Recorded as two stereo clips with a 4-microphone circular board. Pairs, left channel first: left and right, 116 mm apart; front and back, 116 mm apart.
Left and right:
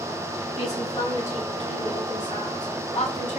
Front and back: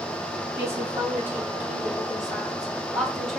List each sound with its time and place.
0.6 s a woman speaking: 110° left, 5 m; by 3.4 s 80° left, 3.5 m